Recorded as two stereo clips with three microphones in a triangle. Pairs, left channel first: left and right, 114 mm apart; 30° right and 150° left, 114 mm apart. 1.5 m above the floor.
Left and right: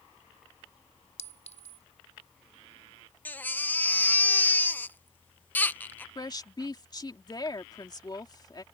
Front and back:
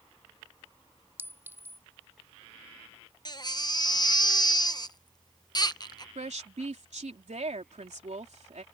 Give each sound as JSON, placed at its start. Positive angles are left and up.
{"t": 1.2, "sound": "a clink", "azimuth_deg": 80}
{"t": 3.2, "sound": "a baby crying", "azimuth_deg": 15}
{"t": 6.2, "sound": "a woman speaking", "azimuth_deg": 140}